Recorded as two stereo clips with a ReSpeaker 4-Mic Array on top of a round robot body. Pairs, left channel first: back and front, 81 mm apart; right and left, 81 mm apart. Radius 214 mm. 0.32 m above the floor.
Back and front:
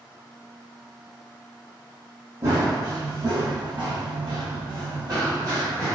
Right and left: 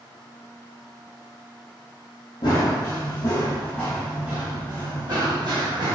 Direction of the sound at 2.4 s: 60° right.